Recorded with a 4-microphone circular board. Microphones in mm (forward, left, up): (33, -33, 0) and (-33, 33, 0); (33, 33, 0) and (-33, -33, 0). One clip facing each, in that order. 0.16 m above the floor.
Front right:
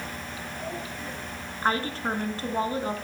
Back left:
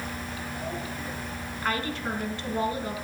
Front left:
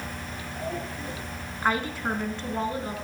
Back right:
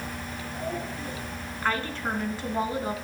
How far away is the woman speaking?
About 1.3 m.